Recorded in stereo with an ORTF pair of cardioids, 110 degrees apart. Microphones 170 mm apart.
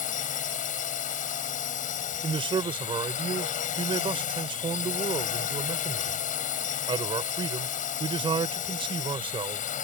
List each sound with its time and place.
0.0 s a drone: 55° left
2.2 s a man speaking: 30° right